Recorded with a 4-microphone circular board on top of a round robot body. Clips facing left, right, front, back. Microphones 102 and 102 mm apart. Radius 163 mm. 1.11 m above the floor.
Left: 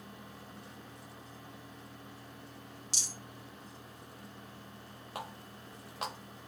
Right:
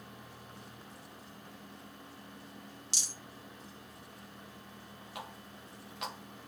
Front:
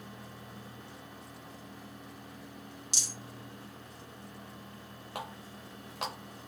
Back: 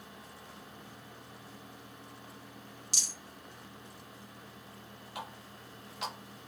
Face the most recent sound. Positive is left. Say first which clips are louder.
# left 3 dB, front 3 dB
turn(degrees=40)